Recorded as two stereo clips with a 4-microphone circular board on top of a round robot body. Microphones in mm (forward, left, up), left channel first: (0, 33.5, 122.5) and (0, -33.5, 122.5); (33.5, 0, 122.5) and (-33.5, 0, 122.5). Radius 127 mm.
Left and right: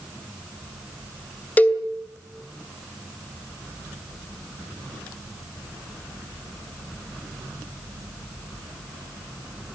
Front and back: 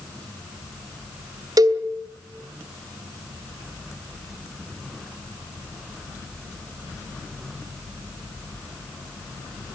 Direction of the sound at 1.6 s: 155° left.